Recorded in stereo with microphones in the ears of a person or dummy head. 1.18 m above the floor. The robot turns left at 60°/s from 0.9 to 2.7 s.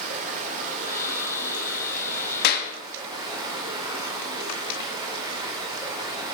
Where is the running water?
45° right, 3.5 m; by 6.3 s 155° right, 3.5 m.